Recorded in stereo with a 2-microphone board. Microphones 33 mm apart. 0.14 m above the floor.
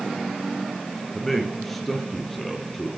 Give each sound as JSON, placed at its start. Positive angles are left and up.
{"t": 1.1, "sound": "a man speaking", "side_deg": 5, "distance_m": 2.0}